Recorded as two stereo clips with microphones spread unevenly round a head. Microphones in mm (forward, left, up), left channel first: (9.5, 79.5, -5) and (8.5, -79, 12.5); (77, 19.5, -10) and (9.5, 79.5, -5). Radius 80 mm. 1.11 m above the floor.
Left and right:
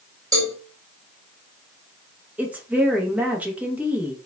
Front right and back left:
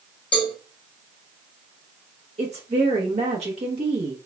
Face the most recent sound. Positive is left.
turn(degrees=-175)